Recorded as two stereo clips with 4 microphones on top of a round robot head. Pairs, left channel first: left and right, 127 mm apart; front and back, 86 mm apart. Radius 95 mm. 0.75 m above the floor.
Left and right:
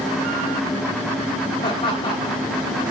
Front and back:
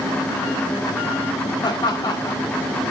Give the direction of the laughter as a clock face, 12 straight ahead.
11 o'clock.